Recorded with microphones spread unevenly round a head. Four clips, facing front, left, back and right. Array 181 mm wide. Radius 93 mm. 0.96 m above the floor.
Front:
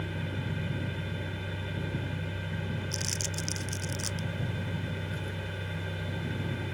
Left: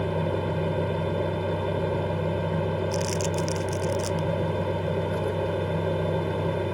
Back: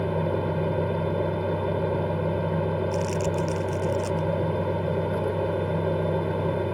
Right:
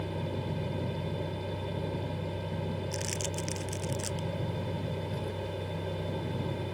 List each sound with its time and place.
0.0 s a fan: 145° left
2.9 s crumpling: 65° left